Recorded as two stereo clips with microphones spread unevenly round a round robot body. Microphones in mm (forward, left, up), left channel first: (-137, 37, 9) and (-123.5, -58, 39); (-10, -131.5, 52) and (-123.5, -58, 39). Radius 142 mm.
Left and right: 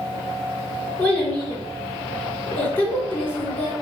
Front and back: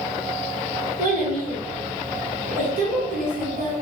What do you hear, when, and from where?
1.0 s a child speaking: 170° left, 4 m